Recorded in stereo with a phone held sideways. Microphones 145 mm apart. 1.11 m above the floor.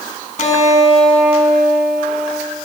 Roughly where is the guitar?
Left.